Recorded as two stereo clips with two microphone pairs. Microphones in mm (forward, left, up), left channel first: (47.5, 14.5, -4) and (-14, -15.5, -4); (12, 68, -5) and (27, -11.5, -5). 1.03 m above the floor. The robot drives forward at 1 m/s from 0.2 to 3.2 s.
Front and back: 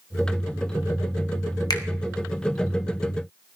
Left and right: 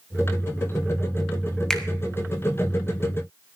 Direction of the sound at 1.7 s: 20° left.